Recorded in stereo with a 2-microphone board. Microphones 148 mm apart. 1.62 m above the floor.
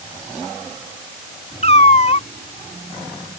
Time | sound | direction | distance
1.6 | a cat meowing | 50° left (ahead or behind) | ?